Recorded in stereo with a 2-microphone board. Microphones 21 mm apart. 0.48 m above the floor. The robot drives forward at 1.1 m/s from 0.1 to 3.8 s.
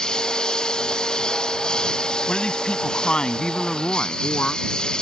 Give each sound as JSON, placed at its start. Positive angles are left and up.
{"t": 0.0, "sound": "a lawn mower", "side_deg": 40}
{"t": 2.3, "sound": "a woman speaking", "side_deg": 65}